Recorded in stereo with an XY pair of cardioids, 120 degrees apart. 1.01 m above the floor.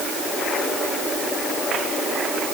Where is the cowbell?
I don't hear a cowbell.